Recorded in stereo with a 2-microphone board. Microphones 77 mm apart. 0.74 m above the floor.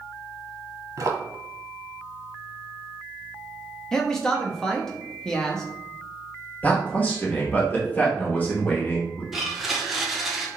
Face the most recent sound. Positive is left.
turn(degrees=0)  # may be behind; listen again after turning